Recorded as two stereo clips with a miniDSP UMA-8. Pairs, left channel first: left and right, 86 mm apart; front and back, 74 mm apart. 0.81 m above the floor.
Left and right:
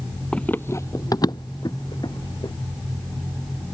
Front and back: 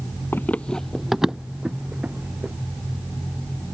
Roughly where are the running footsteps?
Ahead.